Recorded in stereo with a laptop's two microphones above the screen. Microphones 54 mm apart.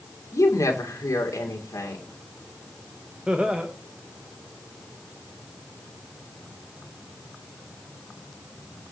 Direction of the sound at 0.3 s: 80° left.